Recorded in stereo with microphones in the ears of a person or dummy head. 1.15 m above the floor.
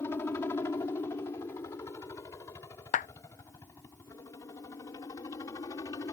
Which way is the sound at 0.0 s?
20° left (ahead or behind).